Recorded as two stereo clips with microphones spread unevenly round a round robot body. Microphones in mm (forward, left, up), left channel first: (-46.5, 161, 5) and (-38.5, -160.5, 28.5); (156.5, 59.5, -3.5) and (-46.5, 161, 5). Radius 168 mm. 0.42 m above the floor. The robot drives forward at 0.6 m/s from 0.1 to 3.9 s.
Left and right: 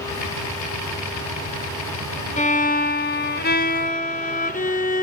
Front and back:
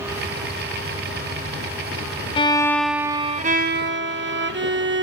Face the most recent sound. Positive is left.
turn(degrees=145)